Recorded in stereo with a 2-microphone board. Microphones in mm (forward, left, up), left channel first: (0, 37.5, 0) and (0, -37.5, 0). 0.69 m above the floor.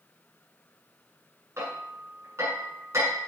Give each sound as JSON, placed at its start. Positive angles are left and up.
{"t": 1.6, "sound": "hammering", "side_deg": -40, "distance_m": 6.5}